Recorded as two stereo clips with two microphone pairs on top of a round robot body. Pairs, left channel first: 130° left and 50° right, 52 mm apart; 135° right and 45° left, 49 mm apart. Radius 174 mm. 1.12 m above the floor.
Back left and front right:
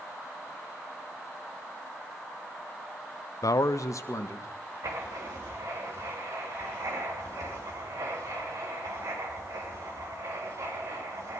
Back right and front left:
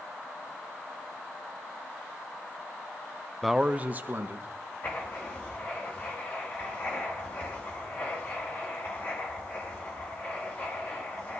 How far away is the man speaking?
About 0.5 m.